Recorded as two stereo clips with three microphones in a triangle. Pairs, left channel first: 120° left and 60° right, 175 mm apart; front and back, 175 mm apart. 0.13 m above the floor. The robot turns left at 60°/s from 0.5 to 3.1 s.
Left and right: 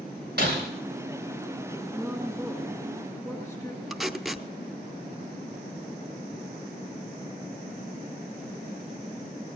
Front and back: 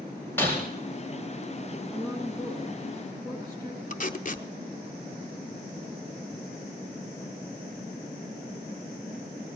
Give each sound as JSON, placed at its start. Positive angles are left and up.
{"t": 0.4, "sound": "breaking glass", "azimuth_deg": -75, "distance_m": 6.0}
{"t": 1.9, "sound": "a woman speaking", "azimuth_deg": -125, "distance_m": 1.8}
{"t": 3.9, "sound": "tape being pulled", "azimuth_deg": 30, "distance_m": 0.7}